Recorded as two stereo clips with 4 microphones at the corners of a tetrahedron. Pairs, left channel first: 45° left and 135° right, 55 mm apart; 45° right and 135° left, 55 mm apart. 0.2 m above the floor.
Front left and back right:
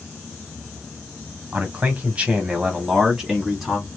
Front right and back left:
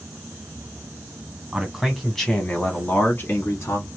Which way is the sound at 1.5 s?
165° right.